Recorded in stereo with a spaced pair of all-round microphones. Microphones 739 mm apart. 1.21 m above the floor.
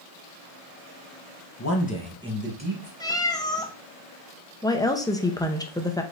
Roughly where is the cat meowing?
Centre.